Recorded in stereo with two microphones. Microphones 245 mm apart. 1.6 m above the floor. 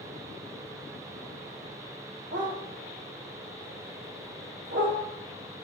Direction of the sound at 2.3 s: 70° right (ahead or behind).